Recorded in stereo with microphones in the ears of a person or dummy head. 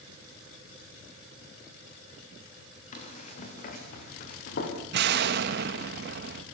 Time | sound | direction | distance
2.9 | running footsteps | 50° left (ahead or behind) | 7 m
4.9 | an explosion | 65° right (ahead or behind) | 1.8 m